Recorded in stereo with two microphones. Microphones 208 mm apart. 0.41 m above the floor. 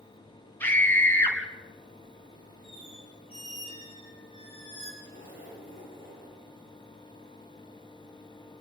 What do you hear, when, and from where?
0.6 s a scream: 10° left (ahead or behind), 4 m
2.6 s a squeak: 30° left (ahead or behind), 7.5 m
5.0 s a zipper: 65° left (ahead or behind), 9.5 m